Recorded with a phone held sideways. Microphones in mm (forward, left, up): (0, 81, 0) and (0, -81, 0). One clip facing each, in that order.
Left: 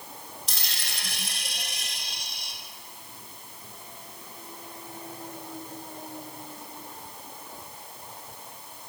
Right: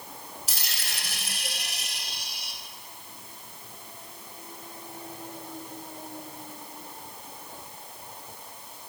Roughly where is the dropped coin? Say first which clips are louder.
Right 1 dB; centre.